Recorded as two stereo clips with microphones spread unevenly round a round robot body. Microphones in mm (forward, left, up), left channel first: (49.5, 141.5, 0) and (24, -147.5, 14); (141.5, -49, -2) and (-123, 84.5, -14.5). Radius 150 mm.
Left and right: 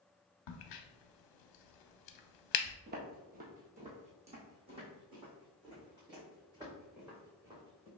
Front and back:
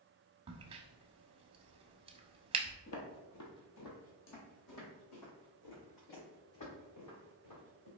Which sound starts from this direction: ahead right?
Footsteps, at 2.9 s.